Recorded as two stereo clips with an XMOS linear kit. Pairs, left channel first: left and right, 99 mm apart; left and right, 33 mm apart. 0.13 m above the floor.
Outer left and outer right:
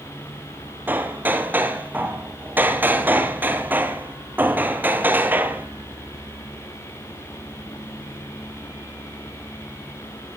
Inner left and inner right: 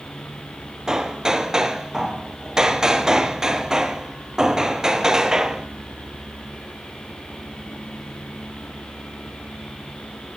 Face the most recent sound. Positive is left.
turn(degrees=-20)  # may be behind; listen again after turning